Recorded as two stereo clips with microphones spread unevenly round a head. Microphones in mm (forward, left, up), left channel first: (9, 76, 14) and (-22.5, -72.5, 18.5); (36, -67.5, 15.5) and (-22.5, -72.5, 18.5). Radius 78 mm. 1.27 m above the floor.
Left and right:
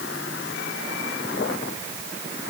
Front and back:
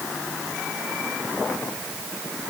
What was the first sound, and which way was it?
Only background noise.